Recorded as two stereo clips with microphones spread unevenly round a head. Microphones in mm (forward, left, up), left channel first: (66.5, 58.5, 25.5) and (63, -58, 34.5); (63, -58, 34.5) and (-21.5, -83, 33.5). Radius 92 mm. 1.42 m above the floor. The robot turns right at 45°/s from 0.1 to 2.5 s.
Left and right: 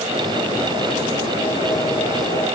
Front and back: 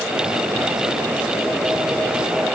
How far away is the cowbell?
No cowbell in this recording.